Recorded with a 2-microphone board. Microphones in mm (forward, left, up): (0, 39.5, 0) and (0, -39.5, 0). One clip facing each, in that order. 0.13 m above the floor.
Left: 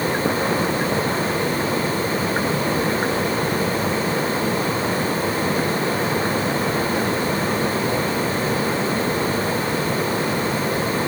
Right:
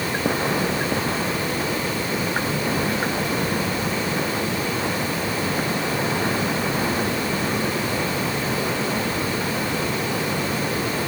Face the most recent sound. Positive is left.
No sound to turn to.